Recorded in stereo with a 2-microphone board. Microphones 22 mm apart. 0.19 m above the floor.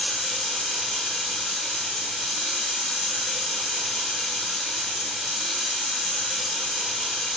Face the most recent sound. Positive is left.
turn(degrees=0)  # may be behind; listen again after turning